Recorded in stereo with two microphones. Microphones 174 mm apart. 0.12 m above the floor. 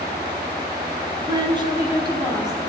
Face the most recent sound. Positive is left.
turn(degrees=-25)  # may be behind; listen again after turning